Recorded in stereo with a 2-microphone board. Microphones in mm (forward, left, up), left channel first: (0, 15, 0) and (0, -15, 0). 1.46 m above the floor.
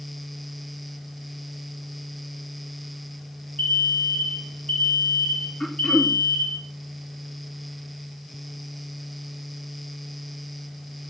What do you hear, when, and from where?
3.6 s an alarm: 55° left (ahead or behind), 3 m
5.6 s throat clearing: 25° left (ahead or behind), 2.5 m